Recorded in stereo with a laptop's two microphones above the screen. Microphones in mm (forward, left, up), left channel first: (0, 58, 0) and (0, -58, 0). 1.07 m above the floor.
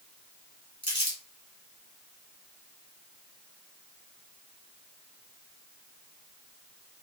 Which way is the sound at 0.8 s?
45° left (ahead or behind).